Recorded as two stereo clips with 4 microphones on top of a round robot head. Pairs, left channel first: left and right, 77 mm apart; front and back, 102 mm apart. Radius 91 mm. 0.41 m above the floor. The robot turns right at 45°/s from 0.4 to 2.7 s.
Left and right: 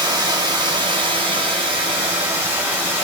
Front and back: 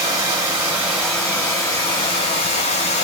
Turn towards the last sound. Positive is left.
turn(degrees=-15)